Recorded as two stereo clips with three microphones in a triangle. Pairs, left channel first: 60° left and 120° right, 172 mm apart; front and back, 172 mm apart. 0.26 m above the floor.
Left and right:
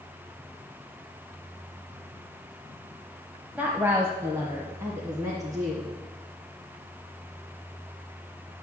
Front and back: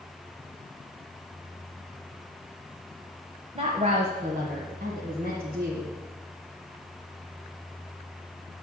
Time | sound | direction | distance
3.5 | a woman speaking | 165° left | 1.2 m